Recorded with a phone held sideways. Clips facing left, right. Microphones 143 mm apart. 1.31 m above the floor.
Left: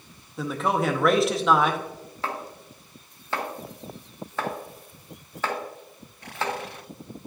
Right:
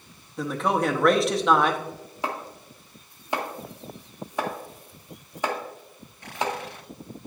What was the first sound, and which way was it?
A man speaking, centre (ahead or behind).